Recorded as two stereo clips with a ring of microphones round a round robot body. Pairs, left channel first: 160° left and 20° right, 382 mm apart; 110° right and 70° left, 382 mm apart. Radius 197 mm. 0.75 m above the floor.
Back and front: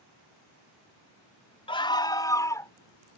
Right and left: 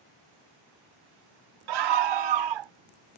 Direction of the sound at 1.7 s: 80° left.